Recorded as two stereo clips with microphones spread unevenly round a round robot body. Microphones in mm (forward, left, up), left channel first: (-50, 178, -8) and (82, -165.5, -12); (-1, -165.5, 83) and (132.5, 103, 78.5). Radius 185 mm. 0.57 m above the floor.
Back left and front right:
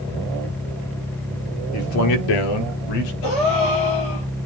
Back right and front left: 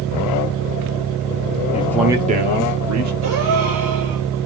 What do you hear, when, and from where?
1.7 s a man speaking: straight behind, 1.1 m; by 3.1 s 95° left, 2 m
3.2 s a gasp: 105° left, 6 m